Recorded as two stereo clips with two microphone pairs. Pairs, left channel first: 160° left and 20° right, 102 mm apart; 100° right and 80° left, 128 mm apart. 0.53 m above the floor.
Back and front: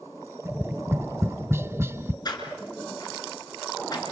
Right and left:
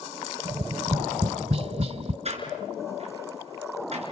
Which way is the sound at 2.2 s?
110° left.